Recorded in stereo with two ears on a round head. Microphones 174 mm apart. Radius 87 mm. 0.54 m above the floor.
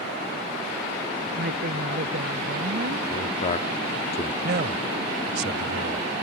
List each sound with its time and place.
1.4 s a woman speaking: 55° right (ahead or behind)
3.1 s a man speaking: 35° left (ahead or behind)
4.4 s a man speaking: 55° right (ahead or behind)